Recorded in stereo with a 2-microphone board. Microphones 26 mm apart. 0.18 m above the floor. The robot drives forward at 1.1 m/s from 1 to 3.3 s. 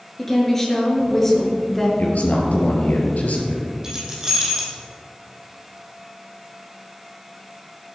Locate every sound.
0.2 s a woman speaking: 10° left (ahead or behind), 3.5 m
2.0 s a man speaking: 65° left (ahead or behind), 4 m
3.8 s keys jangling: 25° right (ahead or behind), 4.5 m